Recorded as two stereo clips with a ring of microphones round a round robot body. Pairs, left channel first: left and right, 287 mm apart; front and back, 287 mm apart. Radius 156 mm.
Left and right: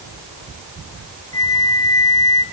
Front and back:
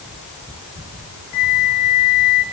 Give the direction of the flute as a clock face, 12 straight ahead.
12 o'clock.